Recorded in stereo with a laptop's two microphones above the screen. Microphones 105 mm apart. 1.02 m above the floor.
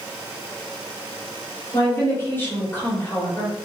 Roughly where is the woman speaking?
Left.